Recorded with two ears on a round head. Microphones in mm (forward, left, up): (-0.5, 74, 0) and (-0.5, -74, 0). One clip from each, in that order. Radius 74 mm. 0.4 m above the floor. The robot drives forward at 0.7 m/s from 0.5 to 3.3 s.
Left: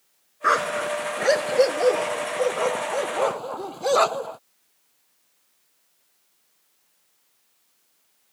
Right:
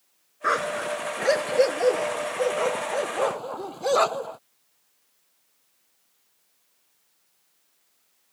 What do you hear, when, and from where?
0.4 s a dog barking: 15° left (ahead or behind); by 4.4 s 5° left (ahead or behind)